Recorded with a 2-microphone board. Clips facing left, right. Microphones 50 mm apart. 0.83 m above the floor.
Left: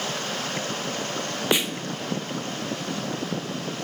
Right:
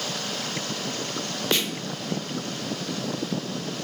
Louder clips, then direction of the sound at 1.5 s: Left 2 dB; 15° left (ahead or behind).